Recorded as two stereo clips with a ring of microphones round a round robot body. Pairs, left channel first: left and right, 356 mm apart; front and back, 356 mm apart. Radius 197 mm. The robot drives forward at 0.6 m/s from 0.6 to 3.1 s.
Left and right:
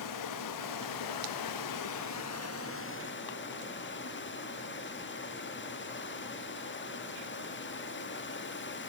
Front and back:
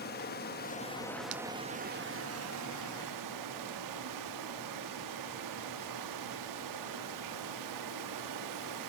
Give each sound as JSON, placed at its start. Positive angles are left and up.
{"t": 0.0, "sound": "running water", "azimuth_deg": 60, "distance_m": 0.9}